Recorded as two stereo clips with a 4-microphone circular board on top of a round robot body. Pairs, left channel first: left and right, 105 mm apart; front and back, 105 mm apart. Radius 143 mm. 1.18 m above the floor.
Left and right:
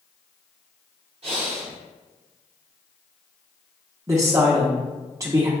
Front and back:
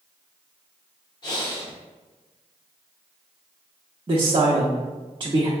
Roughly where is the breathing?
Ahead right.